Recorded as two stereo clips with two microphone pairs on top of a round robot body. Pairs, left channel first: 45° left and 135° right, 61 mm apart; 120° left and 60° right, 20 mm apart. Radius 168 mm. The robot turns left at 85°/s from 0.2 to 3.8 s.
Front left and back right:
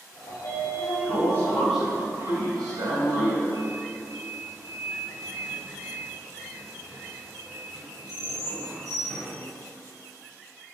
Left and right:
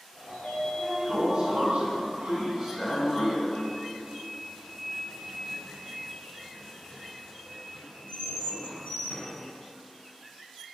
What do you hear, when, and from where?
0.3 s a sliding door: 80° left, 2.5 m; by 9.3 s 140° left, 2.5 m